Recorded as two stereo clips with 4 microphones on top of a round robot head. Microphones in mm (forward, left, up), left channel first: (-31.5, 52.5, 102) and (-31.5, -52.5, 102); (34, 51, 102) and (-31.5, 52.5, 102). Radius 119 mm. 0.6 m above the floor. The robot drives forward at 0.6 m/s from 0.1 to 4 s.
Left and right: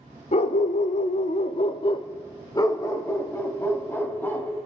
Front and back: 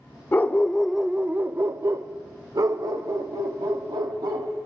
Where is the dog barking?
60° left, 0.7 m; by 4.5 s 160° left, 2.0 m.